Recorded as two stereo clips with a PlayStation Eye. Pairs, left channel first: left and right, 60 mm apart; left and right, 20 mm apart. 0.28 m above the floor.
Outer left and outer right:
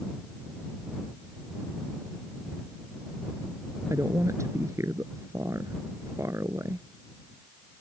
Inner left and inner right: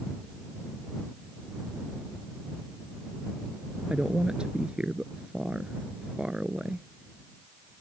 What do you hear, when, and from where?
3.9 s a woman speaking: 55° right (ahead or behind)